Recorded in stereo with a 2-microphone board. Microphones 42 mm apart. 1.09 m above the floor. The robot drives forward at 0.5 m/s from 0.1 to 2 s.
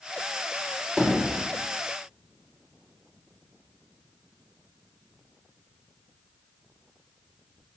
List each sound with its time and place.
1.0 s hammering: 25° right (ahead or behind), 2.5 m; by 1.5 s 30° right (ahead or behind), 2.5 m